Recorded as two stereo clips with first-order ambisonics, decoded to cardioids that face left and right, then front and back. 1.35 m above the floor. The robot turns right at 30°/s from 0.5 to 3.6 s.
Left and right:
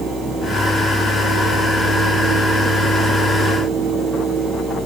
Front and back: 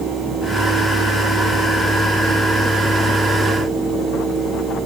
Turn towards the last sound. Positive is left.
No sound to turn to.